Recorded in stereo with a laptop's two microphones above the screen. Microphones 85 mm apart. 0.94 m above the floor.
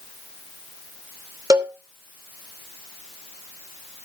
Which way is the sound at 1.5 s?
45° right (ahead or behind).